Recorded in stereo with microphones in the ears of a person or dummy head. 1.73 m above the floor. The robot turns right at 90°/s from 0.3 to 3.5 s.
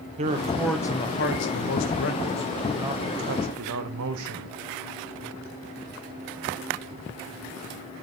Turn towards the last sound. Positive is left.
turn(degrees=-105)